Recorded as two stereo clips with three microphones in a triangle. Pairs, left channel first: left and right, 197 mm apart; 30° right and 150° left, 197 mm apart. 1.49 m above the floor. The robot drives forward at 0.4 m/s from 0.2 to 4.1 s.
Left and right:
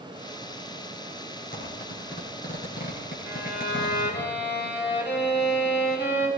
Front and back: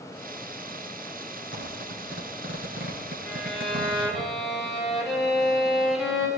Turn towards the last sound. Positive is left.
turn(degrees=55)